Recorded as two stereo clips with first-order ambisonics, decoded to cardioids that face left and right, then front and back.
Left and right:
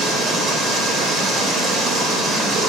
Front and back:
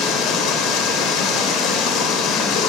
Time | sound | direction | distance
0.0 | running water | 30° right | 3.5 m